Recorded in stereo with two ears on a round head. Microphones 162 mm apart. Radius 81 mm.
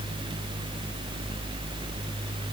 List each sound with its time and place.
Only background noise.